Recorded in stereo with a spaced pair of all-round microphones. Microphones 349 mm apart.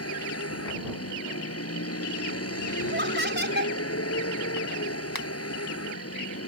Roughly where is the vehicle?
Left.